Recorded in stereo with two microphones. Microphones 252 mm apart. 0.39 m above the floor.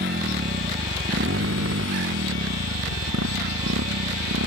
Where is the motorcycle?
40° right (ahead or behind); by 4.5 s 85° right.